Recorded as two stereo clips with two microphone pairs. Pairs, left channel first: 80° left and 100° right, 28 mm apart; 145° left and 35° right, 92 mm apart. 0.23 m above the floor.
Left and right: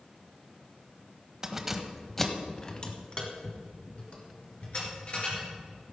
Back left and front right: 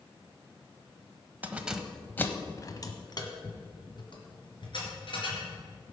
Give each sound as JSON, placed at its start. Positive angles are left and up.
{"t": 1.4, "sound": "keys jangling", "azimuth_deg": -75, "distance_m": 1.0}